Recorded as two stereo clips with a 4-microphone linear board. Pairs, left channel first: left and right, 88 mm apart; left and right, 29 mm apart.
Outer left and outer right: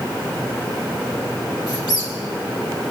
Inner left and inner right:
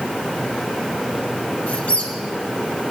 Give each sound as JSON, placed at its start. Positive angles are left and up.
{"t": 1.7, "sound": "a squeak", "side_deg": 50, "distance_m": 3.0}